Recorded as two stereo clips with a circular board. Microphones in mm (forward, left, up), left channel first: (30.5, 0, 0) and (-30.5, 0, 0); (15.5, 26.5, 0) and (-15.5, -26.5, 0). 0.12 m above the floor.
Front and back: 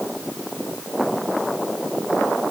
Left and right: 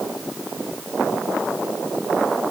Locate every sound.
Only background noise.